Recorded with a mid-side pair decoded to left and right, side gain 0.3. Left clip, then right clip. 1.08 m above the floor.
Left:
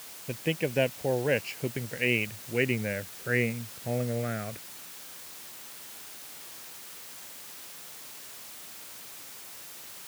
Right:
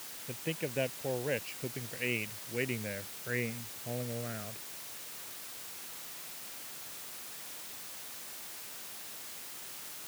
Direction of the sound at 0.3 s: 65° left.